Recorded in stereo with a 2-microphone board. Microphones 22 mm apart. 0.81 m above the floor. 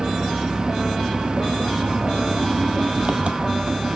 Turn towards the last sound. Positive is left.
turn(degrees=-50)  # may be behind; listen again after turning